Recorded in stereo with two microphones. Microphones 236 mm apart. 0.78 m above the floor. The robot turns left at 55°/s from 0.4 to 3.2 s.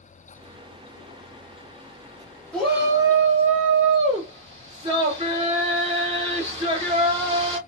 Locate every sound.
2.5 s a shout: 5° left, 1.5 m; by 7.6 s 30° right, 1.5 m